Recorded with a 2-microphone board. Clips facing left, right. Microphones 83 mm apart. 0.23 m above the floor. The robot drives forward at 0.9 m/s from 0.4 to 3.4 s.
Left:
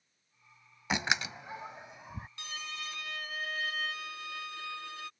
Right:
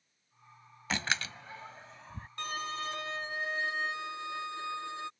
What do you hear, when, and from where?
0.9 s a door slam: 15° left (ahead or behind)
2.4 s a violin: 50° right (ahead or behind); by 5.1 s 25° right (ahead or behind)